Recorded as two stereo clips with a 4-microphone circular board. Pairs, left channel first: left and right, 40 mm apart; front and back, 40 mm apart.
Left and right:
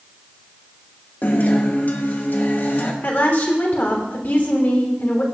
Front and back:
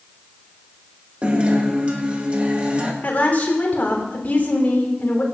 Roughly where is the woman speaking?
Ahead left.